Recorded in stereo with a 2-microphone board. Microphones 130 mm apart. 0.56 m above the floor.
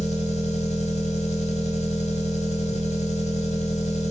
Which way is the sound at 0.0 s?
55° left (ahead or behind).